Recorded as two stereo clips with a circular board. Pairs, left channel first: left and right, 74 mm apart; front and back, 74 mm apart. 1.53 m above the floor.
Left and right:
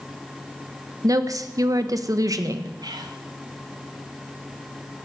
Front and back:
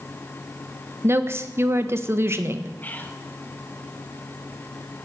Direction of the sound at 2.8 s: 65° right.